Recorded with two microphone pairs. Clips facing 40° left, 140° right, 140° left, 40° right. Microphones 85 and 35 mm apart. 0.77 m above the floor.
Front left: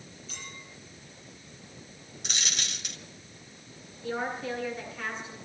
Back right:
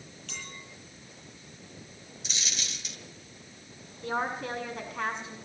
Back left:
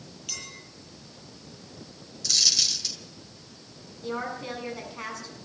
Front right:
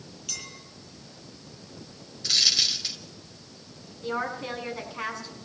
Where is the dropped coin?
20° left, 1.9 m.